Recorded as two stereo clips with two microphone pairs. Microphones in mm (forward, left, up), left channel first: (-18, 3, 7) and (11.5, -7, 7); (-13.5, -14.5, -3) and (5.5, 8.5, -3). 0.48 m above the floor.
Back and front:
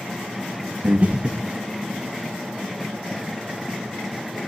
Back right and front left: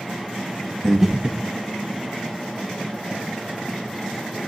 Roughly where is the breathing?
Ahead right.